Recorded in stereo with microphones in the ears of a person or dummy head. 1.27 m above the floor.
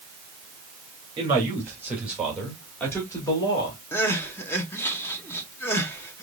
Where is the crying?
15° left (ahead or behind), 0.8 m.